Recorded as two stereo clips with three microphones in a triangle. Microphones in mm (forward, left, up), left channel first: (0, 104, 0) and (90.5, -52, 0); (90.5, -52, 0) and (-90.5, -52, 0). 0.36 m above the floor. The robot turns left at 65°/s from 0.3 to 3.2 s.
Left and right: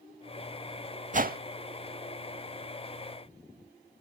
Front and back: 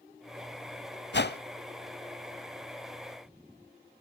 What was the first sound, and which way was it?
A whoosh, 15° right.